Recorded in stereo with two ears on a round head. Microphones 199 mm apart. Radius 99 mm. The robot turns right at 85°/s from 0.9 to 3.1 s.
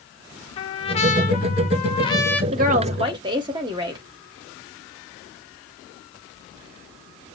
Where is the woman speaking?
85° right, 0.9 m; by 4.0 s 35° right, 0.9 m.